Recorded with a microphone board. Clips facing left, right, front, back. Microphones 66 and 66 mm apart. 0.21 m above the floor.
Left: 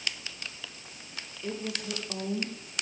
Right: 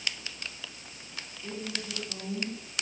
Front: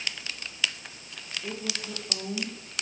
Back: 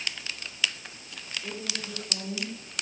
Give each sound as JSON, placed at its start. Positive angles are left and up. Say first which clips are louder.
{"t": 1.4, "sound": "a woman speaking", "louder": "left 3 dB, front 2 dB", "azimuth_deg": 70, "distance_m": 6.5}